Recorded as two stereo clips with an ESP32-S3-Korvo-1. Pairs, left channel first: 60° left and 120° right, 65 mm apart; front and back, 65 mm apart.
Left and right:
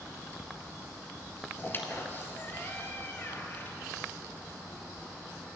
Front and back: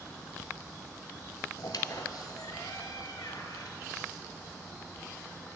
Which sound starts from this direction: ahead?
A squeak, at 1.6 s.